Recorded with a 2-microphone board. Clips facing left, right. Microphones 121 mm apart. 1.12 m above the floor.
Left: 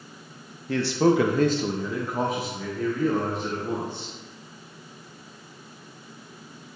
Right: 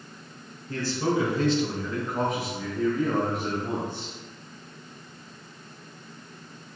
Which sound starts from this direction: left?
A man speaking, at 0.7 s.